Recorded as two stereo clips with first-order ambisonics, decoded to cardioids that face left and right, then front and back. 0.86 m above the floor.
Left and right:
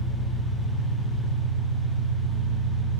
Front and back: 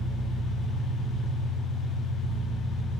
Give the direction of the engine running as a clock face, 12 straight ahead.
10 o'clock.